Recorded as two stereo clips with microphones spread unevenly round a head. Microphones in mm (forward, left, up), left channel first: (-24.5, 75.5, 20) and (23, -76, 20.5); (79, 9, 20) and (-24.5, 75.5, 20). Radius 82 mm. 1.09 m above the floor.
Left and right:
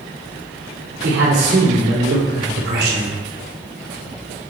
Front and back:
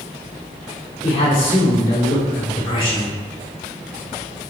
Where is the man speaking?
95° right, 2 m.